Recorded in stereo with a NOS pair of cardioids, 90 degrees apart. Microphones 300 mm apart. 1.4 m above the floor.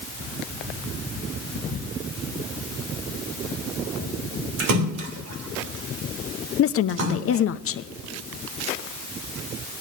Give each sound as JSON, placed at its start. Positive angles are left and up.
{"t": 4.6, "sound": "a splash", "azimuth_deg": -70, "distance_m": 2.5}
{"t": 6.6, "sound": "a woman speaking", "azimuth_deg": 50, "distance_m": 0.8}